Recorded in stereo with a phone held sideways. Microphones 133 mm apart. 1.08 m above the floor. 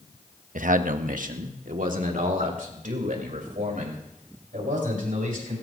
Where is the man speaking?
75° right (ahead or behind), 0.9 m; by 5.5 s 90° right, 7 m.